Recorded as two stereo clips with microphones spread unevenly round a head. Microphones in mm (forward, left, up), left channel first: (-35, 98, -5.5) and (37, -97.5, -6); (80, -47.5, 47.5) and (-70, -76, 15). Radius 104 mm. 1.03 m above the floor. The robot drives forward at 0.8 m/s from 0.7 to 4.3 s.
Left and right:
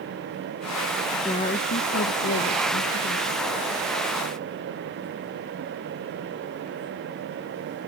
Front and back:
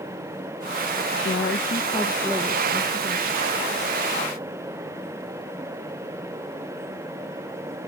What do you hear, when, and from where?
1.2 s a woman speaking: 40° left; by 3.6 s 160° left